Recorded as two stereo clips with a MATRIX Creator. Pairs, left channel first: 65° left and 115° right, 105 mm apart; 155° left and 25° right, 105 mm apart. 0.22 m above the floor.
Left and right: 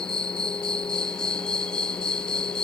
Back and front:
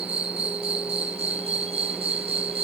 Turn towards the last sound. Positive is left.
turn(degrees=-15)